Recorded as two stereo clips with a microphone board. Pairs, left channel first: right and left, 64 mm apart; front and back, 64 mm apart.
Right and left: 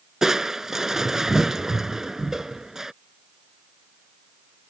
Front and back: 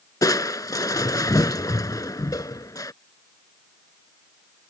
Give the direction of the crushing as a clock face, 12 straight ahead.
12 o'clock.